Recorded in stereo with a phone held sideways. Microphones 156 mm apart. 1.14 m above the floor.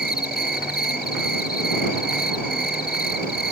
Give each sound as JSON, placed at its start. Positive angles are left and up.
{"t": 0.0, "sound": "an insect", "side_deg": 85}